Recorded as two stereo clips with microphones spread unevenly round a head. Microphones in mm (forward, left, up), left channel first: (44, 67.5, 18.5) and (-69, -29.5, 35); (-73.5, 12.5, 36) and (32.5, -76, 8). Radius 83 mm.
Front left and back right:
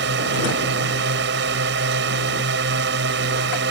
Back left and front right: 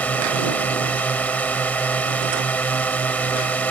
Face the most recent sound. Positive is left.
turn(degrees=-140)